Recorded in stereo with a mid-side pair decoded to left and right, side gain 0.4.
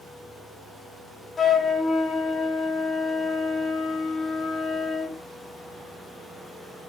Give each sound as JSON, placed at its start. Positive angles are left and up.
{"t": 1.4, "sound": "a flute", "azimuth_deg": 40, "distance_m": 1.5}